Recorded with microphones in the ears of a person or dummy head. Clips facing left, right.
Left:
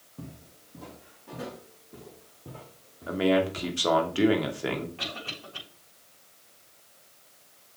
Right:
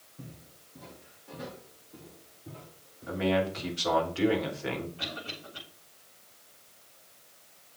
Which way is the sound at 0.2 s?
80° left.